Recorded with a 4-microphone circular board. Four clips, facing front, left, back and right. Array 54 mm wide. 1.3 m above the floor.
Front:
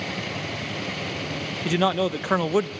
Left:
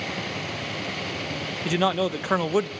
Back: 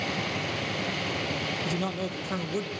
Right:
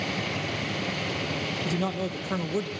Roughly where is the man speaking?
Ahead left.